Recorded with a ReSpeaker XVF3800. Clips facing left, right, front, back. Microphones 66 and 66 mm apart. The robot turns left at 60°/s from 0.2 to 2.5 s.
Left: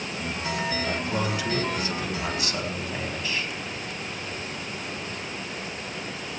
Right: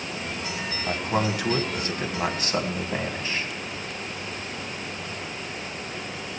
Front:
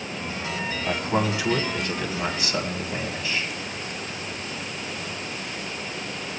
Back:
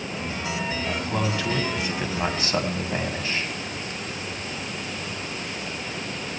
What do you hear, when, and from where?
0.9 s a man speaking: 40° right, 1.6 m; by 3.5 s 135° right, 1.6 m